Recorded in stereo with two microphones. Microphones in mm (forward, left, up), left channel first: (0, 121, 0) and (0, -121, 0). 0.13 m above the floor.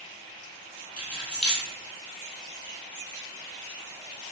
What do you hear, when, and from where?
1.0 s keys jangling: 5° right (ahead or behind), 1.6 m